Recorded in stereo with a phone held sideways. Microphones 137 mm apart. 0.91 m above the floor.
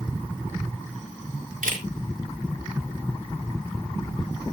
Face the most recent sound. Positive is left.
turn(degrees=-75)  # may be behind; listen again after turning